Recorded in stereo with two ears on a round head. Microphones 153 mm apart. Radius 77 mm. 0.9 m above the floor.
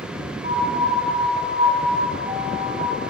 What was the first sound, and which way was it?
A piano, 40° right (ahead or behind).